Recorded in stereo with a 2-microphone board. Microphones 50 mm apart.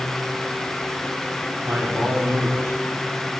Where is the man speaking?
50° right (ahead or behind), 7 m.